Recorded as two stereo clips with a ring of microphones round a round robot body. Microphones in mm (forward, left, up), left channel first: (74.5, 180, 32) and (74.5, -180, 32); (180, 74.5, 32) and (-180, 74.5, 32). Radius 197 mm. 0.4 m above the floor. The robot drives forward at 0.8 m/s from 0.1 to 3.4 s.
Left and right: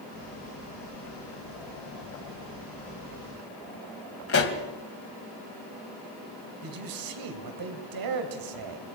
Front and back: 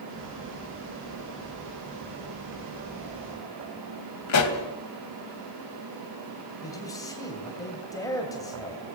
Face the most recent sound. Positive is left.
turn(degrees=-80)